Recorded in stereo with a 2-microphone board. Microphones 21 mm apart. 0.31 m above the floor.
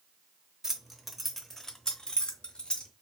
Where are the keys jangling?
25° right (ahead or behind), 0.8 m; by 2.9 s 55° left (ahead or behind), 1.3 m.